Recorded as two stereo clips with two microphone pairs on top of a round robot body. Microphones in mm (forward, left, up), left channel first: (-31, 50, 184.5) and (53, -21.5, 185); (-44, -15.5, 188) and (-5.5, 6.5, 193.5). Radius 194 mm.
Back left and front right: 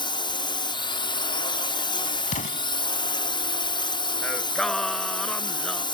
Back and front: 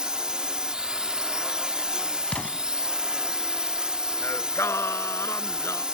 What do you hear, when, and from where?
0.0 s a drone: 105° left
2.3 s an explosion: 145° left
4.2 s singing: 135° right